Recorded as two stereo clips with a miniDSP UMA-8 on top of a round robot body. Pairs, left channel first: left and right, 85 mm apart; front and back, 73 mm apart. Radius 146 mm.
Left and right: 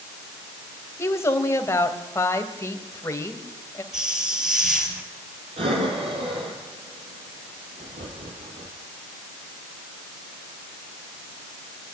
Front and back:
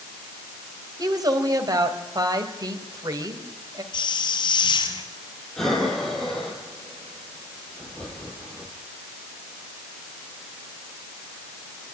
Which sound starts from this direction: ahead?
A hiss, at 3.9 s.